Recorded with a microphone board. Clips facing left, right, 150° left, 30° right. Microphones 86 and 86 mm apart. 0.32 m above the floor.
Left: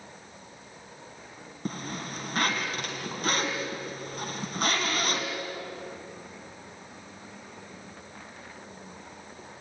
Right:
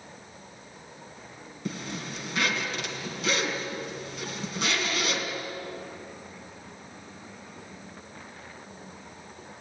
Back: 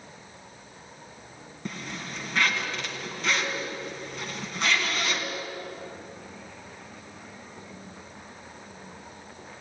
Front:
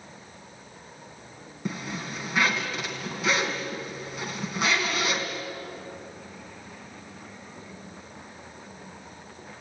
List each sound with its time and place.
1.6 s a zipper: 50° left, 3.5 m